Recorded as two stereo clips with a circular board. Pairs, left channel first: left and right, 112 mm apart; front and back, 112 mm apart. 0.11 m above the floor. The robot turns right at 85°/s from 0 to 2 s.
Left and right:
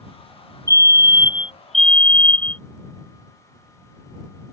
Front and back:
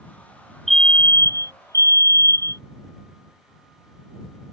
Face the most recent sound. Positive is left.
turn(degrees=25)